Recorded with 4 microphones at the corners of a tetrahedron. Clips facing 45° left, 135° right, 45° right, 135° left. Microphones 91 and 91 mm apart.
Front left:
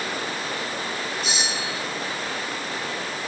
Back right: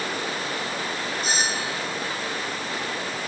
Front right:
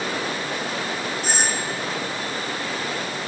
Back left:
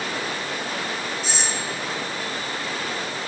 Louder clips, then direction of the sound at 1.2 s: Back right 2 dB, front right 3 dB; 85° right.